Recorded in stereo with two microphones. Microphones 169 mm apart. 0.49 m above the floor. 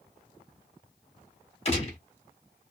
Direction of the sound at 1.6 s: 35° left (ahead or behind).